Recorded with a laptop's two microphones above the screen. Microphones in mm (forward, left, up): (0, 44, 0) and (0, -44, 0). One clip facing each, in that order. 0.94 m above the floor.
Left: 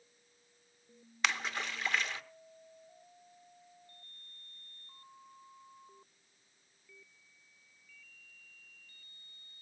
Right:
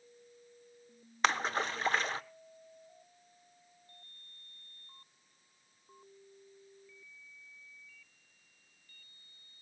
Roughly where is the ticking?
No ticking in this recording.